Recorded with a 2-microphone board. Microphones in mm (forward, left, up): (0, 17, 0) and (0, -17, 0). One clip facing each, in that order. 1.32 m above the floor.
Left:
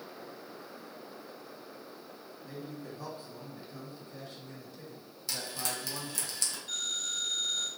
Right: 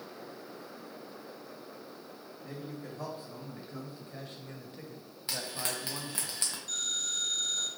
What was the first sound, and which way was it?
A man speaking, 75° right (ahead or behind).